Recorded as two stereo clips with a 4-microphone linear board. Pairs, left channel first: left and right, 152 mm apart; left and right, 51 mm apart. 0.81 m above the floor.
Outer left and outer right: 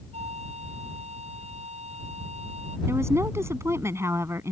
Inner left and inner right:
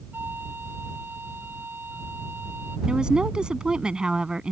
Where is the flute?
45° right (ahead or behind).